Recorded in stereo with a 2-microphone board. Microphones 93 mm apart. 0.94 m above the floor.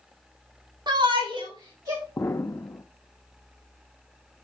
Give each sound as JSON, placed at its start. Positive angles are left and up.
{"t": 0.9, "sound": "a shout", "side_deg": -50, "distance_m": 1.5}
{"t": 2.2, "sound": "an explosion", "side_deg": 25, "distance_m": 0.5}